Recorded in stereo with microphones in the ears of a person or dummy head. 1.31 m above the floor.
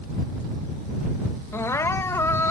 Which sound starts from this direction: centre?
Crying, at 1.5 s.